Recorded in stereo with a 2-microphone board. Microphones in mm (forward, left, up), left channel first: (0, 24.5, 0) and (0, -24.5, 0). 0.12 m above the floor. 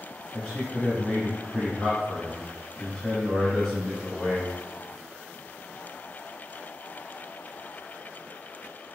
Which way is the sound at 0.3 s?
10° left (ahead or behind).